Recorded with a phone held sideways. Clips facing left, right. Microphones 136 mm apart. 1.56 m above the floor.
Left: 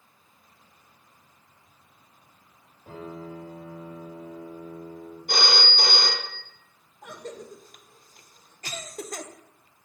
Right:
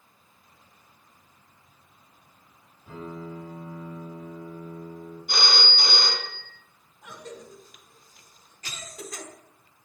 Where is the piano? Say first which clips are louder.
Even; 70° left (ahead or behind), 4 m.